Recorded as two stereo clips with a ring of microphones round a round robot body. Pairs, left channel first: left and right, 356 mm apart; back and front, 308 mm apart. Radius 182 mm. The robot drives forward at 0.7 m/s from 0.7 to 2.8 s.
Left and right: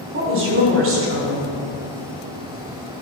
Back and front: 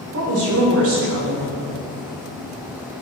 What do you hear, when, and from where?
0.1 s a woman speaking: 40° right, 2.5 m; by 1.6 s 55° right, 1.9 m